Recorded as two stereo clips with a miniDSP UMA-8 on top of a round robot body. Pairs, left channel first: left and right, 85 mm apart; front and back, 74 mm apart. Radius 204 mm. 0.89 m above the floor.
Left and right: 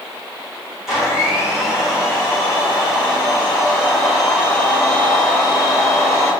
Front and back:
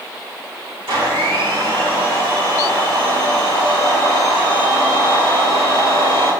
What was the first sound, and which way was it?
A blender, 170° right.